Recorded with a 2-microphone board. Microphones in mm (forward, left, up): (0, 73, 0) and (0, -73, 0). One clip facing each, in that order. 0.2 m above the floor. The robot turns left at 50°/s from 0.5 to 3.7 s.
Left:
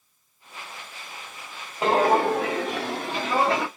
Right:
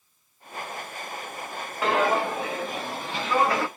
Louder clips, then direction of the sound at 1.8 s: Left 4 dB; 25° left (ahead or behind).